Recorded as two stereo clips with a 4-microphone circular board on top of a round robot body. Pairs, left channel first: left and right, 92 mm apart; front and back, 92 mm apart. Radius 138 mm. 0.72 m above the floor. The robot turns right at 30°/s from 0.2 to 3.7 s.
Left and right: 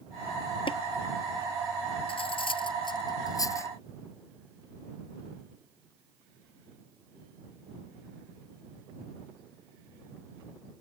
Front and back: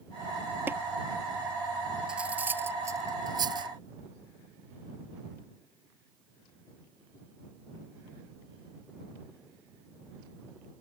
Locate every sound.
0.7 s tapping: 115° left
2.1 s cutlery clinking: 100° left; by 3.7 s 150° left